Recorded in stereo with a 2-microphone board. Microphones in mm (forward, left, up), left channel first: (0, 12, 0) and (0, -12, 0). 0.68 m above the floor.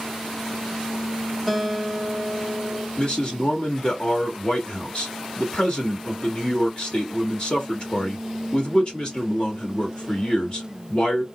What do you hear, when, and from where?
1.5 s a guitar: 10° left (ahead or behind), 1.0 m
3.0 s a man speaking: 45° left (ahead or behind), 1.3 m